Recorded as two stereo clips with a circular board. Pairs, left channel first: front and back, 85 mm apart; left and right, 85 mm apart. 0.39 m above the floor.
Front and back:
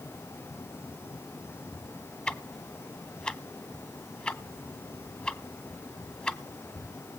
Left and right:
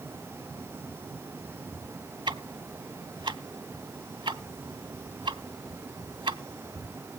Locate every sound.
2.3 s ticking: 75° right, 0.9 m